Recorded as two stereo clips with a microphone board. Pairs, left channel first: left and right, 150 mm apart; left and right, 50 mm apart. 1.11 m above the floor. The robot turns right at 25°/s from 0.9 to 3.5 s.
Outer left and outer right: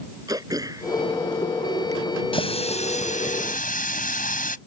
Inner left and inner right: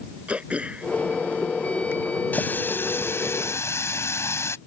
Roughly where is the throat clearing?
Right.